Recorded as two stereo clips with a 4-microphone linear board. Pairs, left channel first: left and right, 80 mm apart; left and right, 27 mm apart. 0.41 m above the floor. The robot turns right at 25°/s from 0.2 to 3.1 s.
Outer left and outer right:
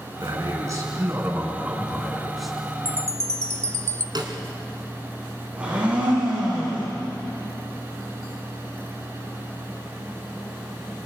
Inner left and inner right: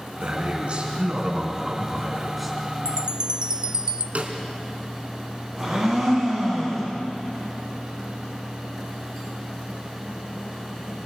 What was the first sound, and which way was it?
A man speaking, 55° right.